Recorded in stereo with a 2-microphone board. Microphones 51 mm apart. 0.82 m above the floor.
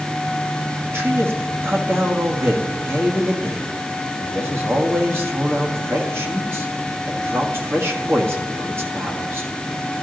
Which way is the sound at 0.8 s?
50° right (ahead or behind).